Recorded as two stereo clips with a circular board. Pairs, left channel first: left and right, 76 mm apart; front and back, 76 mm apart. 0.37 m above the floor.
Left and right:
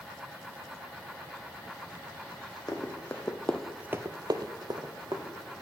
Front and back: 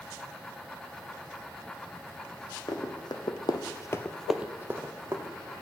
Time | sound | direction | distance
2.7 | running footsteps | 30° left | 1.4 m